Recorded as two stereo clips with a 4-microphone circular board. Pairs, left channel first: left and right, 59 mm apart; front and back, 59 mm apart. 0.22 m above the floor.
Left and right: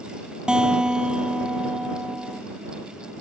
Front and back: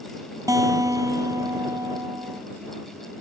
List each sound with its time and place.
0.5 s a guitar: 165° right